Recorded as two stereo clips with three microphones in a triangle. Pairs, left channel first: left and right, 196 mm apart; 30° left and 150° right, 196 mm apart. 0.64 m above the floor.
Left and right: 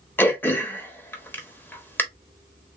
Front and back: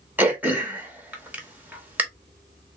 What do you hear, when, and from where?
0.2 s throat clearing: 150° left, 0.9 m